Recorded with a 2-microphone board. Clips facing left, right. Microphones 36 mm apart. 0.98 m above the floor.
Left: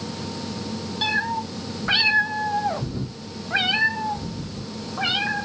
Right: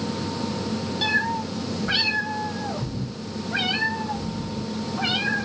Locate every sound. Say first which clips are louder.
1.0 s a cat meowing: even; 10° left (ahead or behind), 0.9 m; by 5.5 s 20° left (ahead or behind), 1.8 m